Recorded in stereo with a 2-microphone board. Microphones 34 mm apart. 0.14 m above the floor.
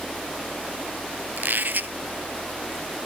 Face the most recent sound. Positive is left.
turn(degrees=-70)  # may be behind; listen again after turning